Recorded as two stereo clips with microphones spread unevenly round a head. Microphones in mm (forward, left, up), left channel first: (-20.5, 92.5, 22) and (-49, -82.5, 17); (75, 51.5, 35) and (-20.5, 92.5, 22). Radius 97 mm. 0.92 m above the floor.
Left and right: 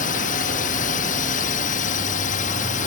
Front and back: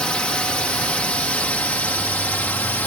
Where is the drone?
55° left; by 2.9 s 50° left.